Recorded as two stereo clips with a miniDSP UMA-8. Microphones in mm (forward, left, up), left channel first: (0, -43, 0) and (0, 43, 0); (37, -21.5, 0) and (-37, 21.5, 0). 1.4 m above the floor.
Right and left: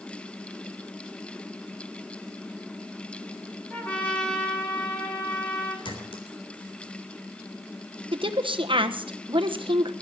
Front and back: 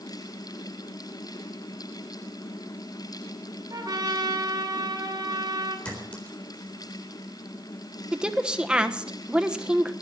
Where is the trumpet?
165° right, 3.5 m.